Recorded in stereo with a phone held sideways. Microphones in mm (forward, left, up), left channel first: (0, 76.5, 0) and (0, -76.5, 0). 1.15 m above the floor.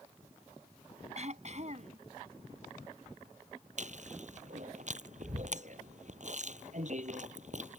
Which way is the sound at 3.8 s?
50° right (ahead or behind).